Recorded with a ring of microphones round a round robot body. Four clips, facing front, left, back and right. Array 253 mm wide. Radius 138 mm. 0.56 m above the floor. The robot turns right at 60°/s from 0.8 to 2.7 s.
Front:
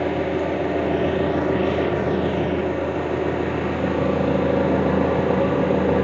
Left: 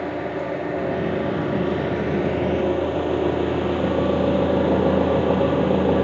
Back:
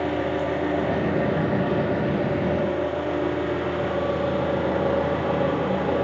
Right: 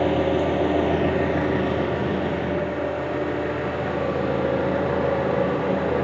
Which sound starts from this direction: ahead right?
An engine running, at 0.0 s.